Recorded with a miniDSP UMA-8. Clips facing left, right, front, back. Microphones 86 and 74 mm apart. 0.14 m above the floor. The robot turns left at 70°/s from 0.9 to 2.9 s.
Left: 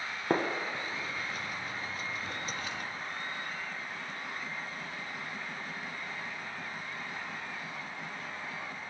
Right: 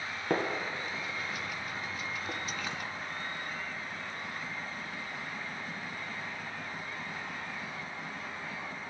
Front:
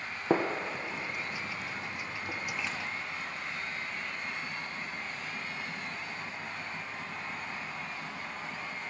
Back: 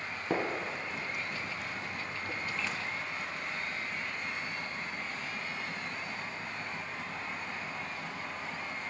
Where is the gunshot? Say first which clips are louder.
Left 1 dB, front 4 dB; 30° left, 0.6 m; by 2.8 s 100° right, 0.6 m.